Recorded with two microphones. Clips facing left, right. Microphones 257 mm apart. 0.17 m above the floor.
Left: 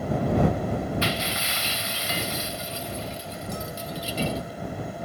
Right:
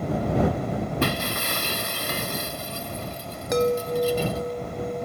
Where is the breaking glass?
55° right (ahead or behind).